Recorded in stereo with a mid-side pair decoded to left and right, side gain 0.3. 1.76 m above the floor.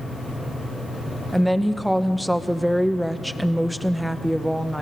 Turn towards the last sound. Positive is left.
turn(degrees=-5)